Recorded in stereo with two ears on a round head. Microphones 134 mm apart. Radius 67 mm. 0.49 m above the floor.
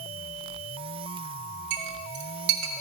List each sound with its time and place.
1.7 s a clink: 75° right (ahead or behind), 1.6 m